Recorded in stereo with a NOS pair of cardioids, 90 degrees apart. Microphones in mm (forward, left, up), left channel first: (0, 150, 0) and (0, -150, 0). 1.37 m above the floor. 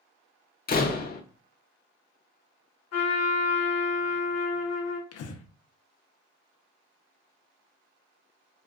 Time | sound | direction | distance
0.7 | a door slam | 30° left | 0.6 m
2.9 | a trumpet | 65° left | 1.0 m
5.1 | breathing | 55° left | 0.6 m